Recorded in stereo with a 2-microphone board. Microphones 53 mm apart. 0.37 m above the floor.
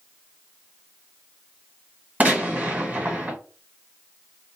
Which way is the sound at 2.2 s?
30° right (ahead or behind).